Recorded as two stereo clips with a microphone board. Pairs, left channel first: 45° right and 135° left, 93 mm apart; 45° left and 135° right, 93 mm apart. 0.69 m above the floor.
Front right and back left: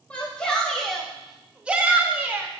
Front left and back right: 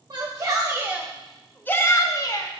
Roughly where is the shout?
Behind right.